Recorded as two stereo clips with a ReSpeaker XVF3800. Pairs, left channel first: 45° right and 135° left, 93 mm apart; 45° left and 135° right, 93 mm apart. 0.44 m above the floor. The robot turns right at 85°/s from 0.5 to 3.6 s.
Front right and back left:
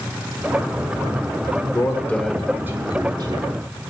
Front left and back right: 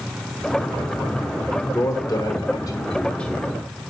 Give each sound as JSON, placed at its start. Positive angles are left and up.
{"t": 1.7, "sound": "a man speaking", "azimuth_deg": -10, "distance_m": 1.3}